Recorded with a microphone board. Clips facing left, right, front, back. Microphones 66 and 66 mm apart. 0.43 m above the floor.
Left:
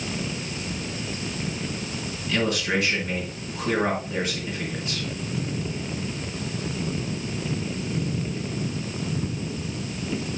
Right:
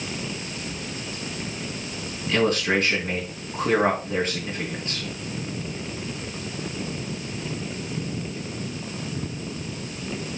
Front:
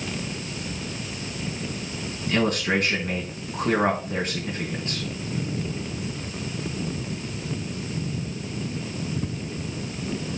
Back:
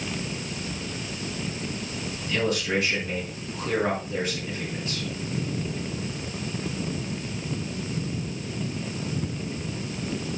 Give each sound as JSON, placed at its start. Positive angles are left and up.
{"t": 2.3, "sound": "a man speaking", "azimuth_deg": -40, "distance_m": 4.5}